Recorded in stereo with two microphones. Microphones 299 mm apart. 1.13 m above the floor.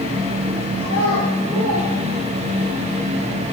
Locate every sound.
0.8 s a child speaking: 45° right (ahead or behind), 9 m; by 2.7 s 55° right (ahead or behind), 10 m